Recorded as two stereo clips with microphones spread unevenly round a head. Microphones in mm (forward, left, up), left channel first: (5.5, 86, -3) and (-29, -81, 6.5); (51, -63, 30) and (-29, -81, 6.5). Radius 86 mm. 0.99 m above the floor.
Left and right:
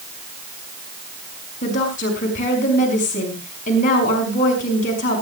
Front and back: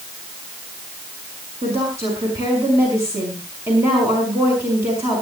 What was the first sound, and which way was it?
A woman speaking, 125° left.